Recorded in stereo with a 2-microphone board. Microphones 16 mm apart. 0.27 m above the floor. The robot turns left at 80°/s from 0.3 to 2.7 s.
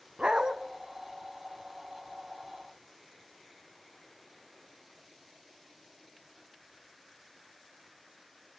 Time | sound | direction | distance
0.2 | a dog barking | 65° right (ahead or behind) | 1.3 m